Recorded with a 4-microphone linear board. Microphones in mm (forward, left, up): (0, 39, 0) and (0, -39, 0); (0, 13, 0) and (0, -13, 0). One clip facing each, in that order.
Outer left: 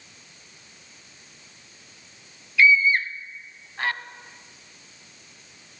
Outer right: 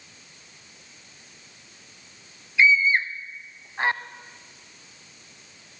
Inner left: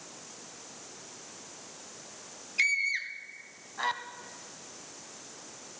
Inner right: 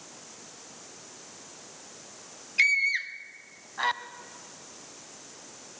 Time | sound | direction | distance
2.6 | a scream | 20° right (ahead or behind) | 1.2 m